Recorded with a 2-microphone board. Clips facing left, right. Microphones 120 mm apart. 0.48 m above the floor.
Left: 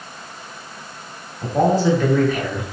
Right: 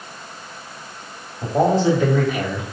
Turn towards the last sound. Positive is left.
turn(degrees=0)  # may be behind; listen again after turning